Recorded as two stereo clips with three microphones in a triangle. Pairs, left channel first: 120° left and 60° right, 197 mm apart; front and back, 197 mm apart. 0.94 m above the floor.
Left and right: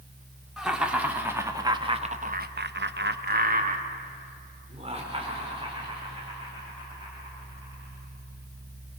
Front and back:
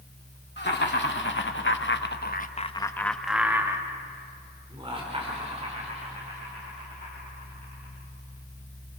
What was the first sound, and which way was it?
Laughter, 30° left.